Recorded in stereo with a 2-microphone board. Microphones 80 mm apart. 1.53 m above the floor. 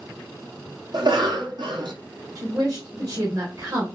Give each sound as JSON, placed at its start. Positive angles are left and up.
{"t": 0.9, "sound": "a cough", "side_deg": -65, "distance_m": 0.7}
{"t": 2.4, "sound": "a woman speaking", "side_deg": -50, "distance_m": 1.2}